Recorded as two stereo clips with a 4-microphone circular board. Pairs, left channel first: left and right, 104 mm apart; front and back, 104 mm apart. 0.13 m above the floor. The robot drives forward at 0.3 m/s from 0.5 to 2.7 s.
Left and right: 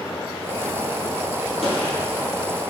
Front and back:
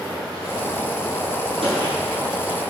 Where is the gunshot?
Straight behind, 1.5 m.